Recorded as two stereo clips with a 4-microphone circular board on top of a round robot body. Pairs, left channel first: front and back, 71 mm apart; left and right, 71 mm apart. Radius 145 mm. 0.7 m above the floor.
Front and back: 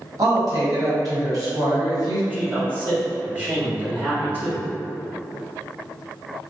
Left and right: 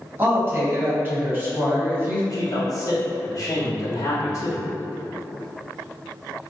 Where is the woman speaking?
150° right, 1.6 m.